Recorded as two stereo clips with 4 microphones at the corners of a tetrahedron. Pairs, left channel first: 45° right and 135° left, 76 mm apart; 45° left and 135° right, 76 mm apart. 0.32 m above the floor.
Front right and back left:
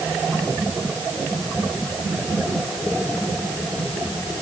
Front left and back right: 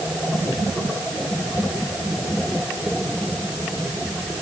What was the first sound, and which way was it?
Only background noise.